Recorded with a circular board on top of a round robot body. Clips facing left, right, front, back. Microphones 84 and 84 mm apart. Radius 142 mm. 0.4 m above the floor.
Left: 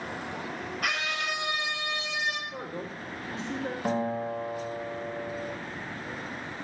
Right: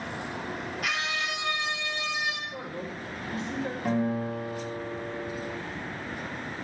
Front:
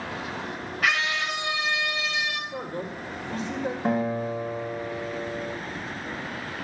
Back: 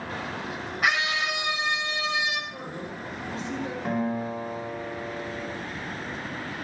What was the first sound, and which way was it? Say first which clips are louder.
A scream: left 1 dB, even; 110° left.